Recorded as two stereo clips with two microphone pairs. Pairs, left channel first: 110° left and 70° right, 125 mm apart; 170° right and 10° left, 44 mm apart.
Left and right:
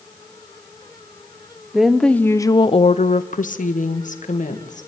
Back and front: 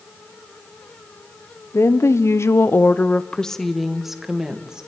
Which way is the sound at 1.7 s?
155° right.